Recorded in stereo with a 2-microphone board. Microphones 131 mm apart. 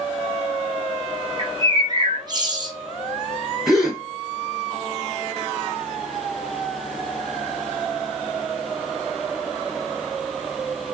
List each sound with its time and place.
1.4 s a bird: 35° right (ahead or behind), 1.0 m
3.7 s a gasp: 5° right (ahead or behind), 1.4 m